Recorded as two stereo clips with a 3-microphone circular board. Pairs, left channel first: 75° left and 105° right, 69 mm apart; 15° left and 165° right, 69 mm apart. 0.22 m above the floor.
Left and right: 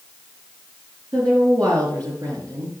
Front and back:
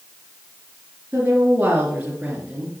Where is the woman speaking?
105° right, 4 m; by 2.7 s 90° right, 3.5 m.